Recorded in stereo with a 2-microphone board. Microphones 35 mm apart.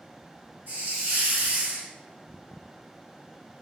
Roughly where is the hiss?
Right.